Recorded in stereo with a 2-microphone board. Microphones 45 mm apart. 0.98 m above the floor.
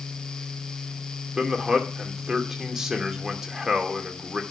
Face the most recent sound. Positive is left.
turn(degrees=-10)  # may be behind; listen again after turning